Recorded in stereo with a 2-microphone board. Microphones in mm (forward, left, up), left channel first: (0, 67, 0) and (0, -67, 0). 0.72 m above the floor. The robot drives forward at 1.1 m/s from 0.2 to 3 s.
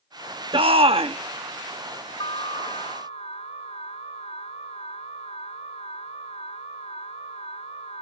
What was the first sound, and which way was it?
A shout, 45° right (ahead or behind).